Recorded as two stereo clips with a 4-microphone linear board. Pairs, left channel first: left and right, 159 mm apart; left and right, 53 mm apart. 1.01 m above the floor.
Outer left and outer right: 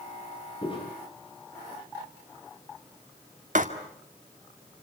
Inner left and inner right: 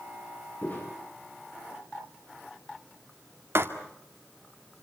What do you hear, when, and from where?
0.6 s footsteps: 35° left (ahead or behind), 9 m
3.5 s writing: 55° right (ahead or behind), 2 m